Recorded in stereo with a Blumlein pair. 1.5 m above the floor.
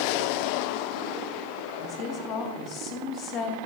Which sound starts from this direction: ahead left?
A woman speaking, at 1.8 s.